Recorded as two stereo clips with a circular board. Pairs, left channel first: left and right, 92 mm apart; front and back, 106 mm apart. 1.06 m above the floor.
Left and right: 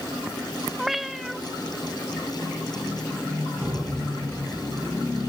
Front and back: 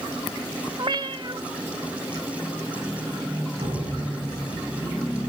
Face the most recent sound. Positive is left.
turn(degrees=-175)